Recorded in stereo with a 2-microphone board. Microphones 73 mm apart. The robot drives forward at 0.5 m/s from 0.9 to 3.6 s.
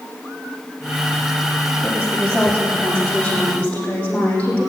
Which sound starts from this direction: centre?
A woman speaking, at 1.8 s.